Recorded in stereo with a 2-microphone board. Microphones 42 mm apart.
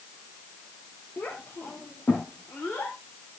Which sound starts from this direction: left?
A child speaking, at 1.2 s.